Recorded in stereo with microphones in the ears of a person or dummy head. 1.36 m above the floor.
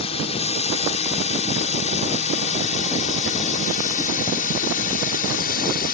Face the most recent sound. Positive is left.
turn(degrees=50)  # may be behind; listen again after turning